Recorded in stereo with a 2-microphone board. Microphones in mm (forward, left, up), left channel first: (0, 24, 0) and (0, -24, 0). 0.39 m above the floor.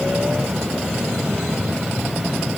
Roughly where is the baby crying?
I don't hear a baby crying.